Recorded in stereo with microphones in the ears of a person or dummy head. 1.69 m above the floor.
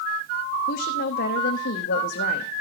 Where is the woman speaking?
60° left (ahead or behind), 0.8 m.